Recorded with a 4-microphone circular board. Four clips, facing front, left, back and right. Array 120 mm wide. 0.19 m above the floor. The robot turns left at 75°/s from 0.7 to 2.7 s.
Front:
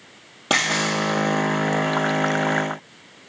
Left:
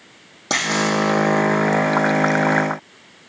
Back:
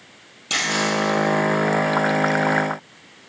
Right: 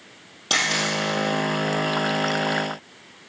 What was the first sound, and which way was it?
A camera shutter, 25° left.